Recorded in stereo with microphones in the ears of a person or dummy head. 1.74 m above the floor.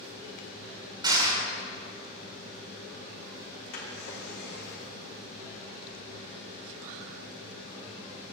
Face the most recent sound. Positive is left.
turn(degrees=55)  # may be behind; listen again after turning